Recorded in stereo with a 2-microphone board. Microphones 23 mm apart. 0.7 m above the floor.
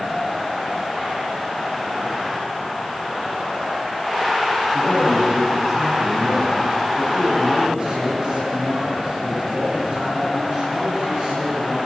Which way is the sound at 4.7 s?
25° right (ahead or behind).